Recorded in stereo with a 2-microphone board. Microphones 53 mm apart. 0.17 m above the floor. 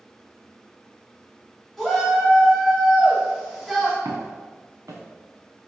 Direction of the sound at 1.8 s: Centre (ahead or behind).